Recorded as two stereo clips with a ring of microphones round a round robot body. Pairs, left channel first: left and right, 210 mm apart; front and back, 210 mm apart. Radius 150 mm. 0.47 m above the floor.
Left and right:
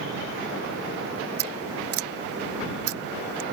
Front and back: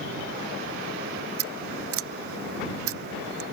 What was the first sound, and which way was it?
Scissors, 135° right.